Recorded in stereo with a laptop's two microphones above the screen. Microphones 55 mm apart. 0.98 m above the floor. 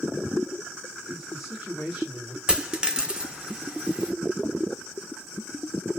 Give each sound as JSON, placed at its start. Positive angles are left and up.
{"t": 1.1, "sound": "a man speaking", "side_deg": -10, "distance_m": 2.0}
{"t": 2.5, "sound": "a dropped coin", "side_deg": -15, "distance_m": 0.7}